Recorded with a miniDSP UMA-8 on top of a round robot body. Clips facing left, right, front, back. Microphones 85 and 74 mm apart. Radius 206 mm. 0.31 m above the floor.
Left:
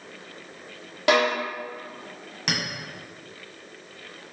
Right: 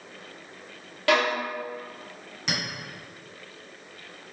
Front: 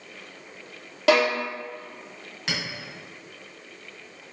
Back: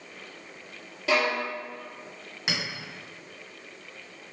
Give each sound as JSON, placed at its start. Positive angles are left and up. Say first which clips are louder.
{"t": 1.1, "sound": "a violin", "louder": "left 2 dB, front 5 dB", "azimuth_deg": 20, "distance_m": 0.5}
{"t": 2.5, "sound": "a clink", "louder": "left 2 dB, front 1 dB", "azimuth_deg": 110, "distance_m": 1.5}